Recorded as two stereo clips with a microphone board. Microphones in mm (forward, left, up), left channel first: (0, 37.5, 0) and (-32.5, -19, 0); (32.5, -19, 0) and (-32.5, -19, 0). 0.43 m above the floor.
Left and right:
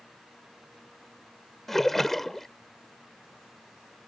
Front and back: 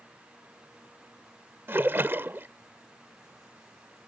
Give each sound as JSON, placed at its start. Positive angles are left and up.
{"t": 1.7, "sound": "a splash", "azimuth_deg": 145}